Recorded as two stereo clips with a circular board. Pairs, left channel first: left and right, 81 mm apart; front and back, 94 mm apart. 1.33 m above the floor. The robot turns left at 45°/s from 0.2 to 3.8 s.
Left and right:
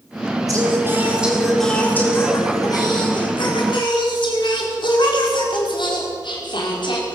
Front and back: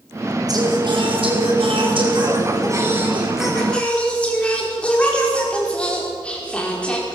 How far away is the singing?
About 5 m.